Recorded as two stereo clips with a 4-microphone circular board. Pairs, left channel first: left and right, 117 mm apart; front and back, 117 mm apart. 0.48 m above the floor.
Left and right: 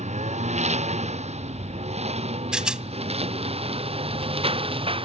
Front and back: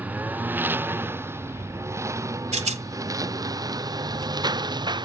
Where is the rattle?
175° right.